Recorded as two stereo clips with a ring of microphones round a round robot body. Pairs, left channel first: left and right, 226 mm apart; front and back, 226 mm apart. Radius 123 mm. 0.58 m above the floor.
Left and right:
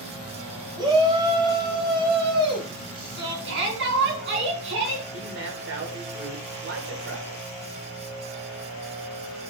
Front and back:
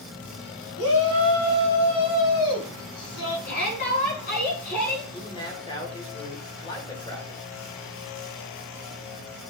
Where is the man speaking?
70° right, 2.5 m.